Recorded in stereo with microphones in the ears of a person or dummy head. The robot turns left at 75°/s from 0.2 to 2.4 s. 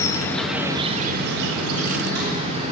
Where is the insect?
25° left, 1.0 m; by 2.7 s 140° right, 1.0 m.